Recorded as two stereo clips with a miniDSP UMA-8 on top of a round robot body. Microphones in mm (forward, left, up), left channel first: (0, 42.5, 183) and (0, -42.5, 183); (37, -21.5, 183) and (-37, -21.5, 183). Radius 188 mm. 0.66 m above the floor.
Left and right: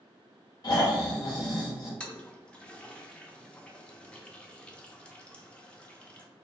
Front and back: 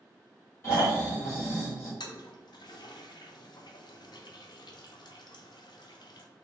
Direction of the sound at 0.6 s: 50° left.